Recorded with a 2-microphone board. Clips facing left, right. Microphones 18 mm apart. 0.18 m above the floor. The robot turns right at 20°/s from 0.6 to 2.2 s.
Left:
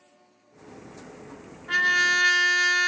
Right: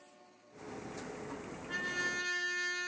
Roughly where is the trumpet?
Left.